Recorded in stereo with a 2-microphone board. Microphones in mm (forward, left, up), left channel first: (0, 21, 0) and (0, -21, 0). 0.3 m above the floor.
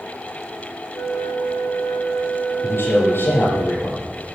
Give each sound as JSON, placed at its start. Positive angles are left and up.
{"t": 0.9, "sound": "a flute", "side_deg": 80, "distance_m": 6.0}
{"t": 2.6, "sound": "a man speaking", "side_deg": 60, "distance_m": 8.5}